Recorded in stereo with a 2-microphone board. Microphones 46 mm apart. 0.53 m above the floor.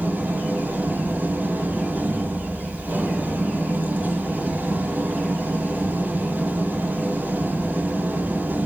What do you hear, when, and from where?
0.0 s an engine running: 45° right (ahead or behind), 9.5 m